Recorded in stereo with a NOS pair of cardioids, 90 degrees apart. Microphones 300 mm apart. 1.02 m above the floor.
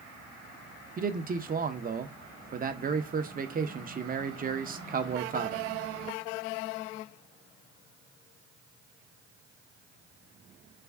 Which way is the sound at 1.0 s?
30° right.